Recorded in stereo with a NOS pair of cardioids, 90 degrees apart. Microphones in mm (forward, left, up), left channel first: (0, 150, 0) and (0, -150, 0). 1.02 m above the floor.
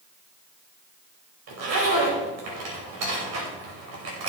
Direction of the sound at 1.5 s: 60° right.